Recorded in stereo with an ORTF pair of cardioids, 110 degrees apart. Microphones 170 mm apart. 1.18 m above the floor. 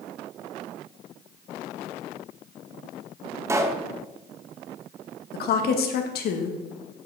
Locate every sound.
3.5 s a pop: 15° right, 0.9 m
5.3 s a woman speaking: 65° left, 1.5 m